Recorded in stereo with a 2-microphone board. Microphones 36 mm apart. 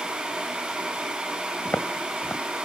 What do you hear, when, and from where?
1.6 s footsteps: 85° left, 2 m